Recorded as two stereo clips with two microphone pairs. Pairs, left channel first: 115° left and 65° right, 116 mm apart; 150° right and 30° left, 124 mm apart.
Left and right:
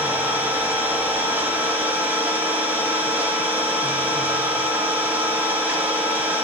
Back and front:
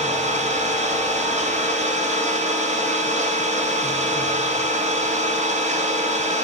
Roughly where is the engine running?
Ahead.